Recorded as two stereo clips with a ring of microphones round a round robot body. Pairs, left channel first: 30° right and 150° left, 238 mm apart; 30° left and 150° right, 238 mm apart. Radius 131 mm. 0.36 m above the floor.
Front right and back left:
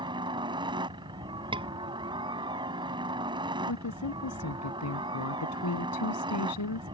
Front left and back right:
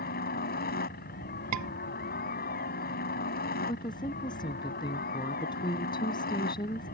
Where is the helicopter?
80° left.